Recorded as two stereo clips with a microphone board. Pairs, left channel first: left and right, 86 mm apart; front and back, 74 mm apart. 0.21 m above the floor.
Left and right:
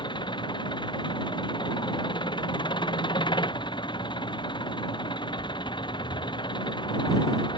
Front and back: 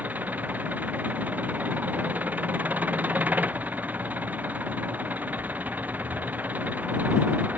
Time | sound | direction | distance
0.0 | an engine running | 115° left | ?